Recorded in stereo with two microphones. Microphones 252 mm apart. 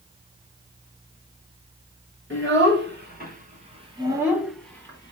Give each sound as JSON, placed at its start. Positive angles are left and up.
{"t": 2.3, "sound": "a child speaking", "side_deg": -50, "distance_m": 1.7}